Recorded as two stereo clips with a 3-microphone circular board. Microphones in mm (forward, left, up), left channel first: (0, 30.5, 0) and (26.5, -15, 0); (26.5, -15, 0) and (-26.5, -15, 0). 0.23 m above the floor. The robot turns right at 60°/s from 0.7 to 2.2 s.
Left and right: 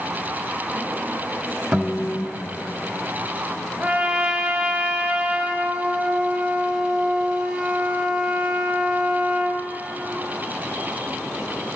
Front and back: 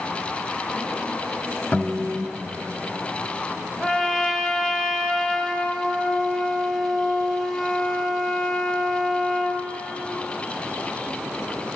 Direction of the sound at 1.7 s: Straight ahead.